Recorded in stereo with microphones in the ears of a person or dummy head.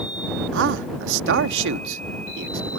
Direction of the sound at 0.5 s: 65° right (ahead or behind).